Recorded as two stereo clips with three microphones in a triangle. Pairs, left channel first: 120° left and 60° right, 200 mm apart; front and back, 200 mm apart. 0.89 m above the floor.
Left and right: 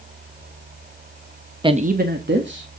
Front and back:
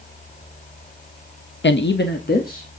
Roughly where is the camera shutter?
I don't hear a camera shutter.